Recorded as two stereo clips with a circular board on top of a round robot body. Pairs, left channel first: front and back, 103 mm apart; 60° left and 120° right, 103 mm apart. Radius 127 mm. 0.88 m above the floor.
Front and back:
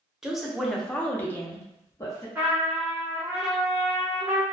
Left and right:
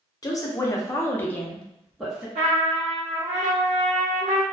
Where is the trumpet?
105° right, 0.6 m.